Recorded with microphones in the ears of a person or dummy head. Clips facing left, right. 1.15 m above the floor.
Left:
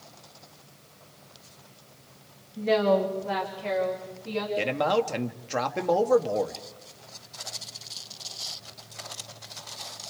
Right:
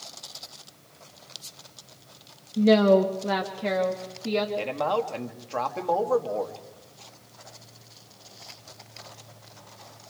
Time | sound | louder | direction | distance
2.6 | a woman speaking | right 5 dB | 50° right (ahead or behind) | 1.6 m
4.6 | a man speaking | left 2 dB | 20° left (ahead or behind) | 1.6 m